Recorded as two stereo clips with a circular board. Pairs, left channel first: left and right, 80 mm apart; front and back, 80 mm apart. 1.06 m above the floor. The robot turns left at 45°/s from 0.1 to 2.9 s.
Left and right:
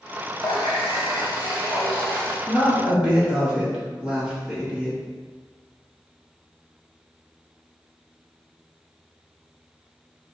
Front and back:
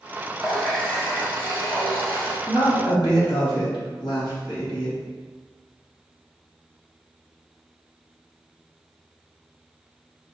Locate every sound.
0.4 s a running tap: 100° left, 1.4 m; by 2.4 s 10° left, 1.4 m
2.5 s a woman speaking: 5° left, 1.8 m; by 5.0 s 15° right, 1.8 m